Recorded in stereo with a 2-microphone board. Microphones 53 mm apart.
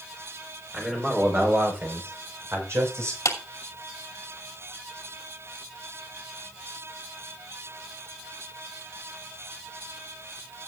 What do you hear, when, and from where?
0.7 s a man speaking: 20° right (ahead or behind), 4.5 m; by 3.1 s 60° right (ahead or behind), 5.5 m
3.2 s a clap: 75° left (ahead or behind), 2.5 m